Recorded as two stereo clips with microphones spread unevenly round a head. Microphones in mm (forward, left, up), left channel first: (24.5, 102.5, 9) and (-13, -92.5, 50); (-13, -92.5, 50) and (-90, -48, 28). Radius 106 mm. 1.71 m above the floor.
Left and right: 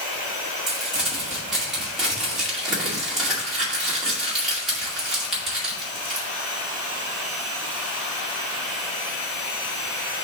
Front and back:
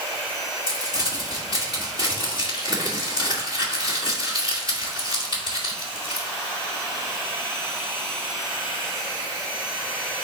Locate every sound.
0.7 s crumpling: 20° right, 2 m